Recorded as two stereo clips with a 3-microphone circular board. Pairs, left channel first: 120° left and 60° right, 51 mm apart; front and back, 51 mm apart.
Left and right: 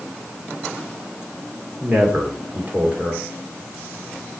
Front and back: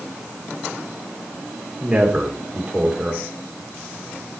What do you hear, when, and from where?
1.8 s a man speaking: 110° right, 2.0 m